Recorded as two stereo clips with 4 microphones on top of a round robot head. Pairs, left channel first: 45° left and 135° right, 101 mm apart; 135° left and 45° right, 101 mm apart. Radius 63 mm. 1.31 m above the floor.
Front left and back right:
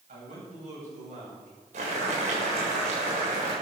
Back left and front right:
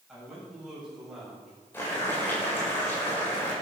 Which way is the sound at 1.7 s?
150° right.